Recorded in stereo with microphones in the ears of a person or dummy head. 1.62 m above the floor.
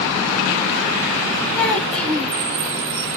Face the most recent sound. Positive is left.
turn(degrees=5)  # may be behind; listen again after turning